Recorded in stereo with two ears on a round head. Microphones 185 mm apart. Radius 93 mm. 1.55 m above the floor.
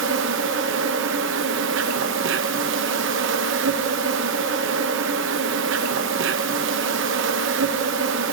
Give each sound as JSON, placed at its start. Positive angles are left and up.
{"t": 0.0, "sound": "an insect", "side_deg": -60, "distance_m": 0.9}